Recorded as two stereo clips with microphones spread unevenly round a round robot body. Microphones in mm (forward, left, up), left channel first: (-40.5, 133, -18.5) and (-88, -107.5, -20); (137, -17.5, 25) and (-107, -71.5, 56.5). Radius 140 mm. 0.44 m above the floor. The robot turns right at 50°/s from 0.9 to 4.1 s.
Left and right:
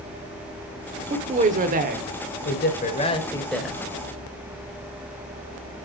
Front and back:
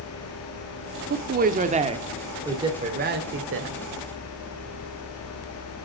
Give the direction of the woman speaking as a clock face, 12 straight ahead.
5 o'clock.